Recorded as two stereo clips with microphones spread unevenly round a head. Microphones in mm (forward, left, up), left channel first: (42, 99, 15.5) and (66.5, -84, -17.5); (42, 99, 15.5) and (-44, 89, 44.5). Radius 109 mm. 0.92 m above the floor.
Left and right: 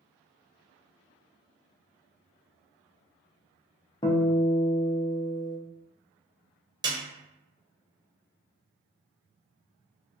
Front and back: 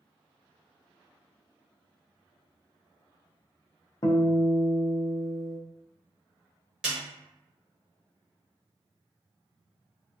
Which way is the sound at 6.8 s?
150° right.